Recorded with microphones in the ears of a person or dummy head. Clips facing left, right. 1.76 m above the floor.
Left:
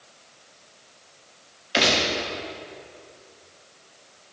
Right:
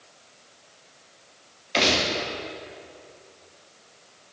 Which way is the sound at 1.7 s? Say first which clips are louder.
Left 1 dB; 10° left (ahead or behind).